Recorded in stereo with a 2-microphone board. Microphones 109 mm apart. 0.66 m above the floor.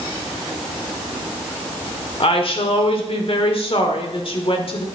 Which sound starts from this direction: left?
A woman speaking, at 2.2 s.